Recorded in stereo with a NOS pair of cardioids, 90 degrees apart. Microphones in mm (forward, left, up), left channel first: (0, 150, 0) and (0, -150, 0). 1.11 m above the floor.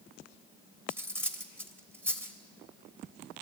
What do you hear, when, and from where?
0.9 s cutlery clinking: 5° right, 3 m